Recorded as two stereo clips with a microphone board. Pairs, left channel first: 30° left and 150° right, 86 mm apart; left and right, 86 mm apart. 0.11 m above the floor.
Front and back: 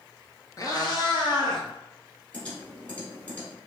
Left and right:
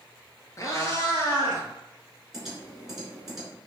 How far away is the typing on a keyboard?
About 1.6 m.